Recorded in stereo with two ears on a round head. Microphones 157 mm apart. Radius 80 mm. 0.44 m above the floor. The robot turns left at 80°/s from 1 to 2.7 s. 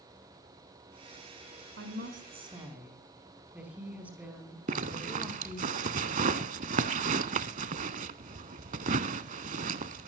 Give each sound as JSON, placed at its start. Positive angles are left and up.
{"t": 1.8, "sound": "a woman speaking", "azimuth_deg": -95, "distance_m": 4.5}
{"t": 4.7, "sound": "a zipper", "side_deg": -45, "distance_m": 0.7}